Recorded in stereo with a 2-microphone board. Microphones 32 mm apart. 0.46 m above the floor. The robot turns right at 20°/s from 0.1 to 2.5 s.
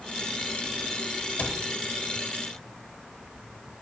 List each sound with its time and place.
1.4 s a cupboard door: 55° left (ahead or behind), 1.3 m; by 1.6 s 50° left (ahead or behind), 1.3 m